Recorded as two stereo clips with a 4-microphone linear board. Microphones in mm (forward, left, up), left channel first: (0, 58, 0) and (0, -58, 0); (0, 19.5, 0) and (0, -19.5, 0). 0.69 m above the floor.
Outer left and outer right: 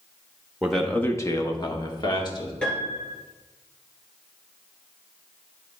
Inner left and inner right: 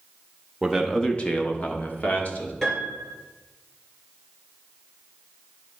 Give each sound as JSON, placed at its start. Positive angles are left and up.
{"t": 0.6, "sound": "a man speaking", "side_deg": -5, "distance_m": 0.8}
{"t": 2.6, "sound": "a piano", "side_deg": 10, "distance_m": 3.0}